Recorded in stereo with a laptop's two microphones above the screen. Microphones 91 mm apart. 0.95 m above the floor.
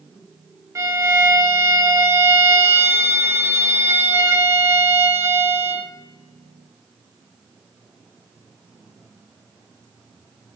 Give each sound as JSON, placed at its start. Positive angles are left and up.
{"t": 0.8, "sound": "a violin", "side_deg": -35, "distance_m": 0.8}